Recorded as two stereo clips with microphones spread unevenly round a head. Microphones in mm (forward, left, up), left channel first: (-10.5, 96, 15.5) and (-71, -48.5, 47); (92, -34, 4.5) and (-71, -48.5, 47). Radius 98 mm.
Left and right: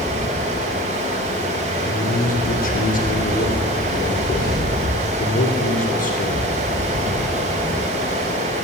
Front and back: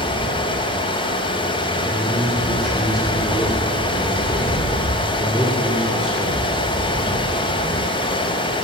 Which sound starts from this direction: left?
A man speaking, at 1.9 s.